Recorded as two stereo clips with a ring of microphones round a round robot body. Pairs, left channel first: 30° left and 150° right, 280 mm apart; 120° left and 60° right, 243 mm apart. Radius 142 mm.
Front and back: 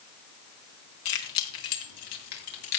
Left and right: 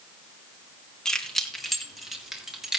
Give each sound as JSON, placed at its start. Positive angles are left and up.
{"t": 1.1, "sound": "keys jangling", "azimuth_deg": 35, "distance_m": 3.5}